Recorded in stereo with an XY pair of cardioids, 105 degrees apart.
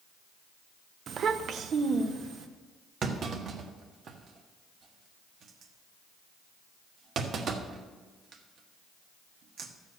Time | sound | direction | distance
1.1 | a child speaking | 50° right | 0.6 m
3.0 | a clunk | 60° right | 1.4 m